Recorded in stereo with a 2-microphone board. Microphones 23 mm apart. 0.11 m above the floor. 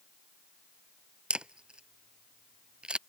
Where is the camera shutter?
50° right (ahead or behind).